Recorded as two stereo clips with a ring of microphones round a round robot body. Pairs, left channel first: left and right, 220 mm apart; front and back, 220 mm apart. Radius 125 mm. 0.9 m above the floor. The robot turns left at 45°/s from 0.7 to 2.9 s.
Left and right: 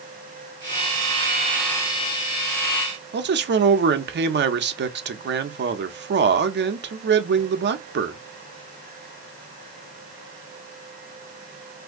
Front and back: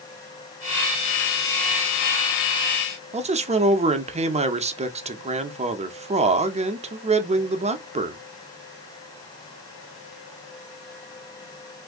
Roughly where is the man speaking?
Behind right.